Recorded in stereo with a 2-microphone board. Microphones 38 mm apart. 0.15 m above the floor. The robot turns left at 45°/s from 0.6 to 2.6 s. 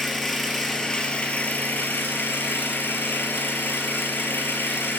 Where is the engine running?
170° left, 2.5 m; by 5.0 s 80° left, 2.5 m.